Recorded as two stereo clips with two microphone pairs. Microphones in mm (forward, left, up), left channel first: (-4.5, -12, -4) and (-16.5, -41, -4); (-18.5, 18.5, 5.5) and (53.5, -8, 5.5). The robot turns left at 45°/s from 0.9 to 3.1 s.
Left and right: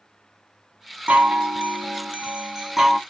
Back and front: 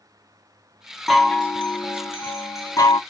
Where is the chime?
110° right, 1.1 m; by 3.0 s 165° left, 1.1 m.